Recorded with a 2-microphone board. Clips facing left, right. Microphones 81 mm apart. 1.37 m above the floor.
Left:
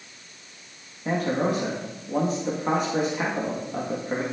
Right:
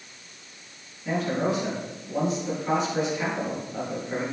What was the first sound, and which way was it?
A man speaking, 50° left (ahead or behind).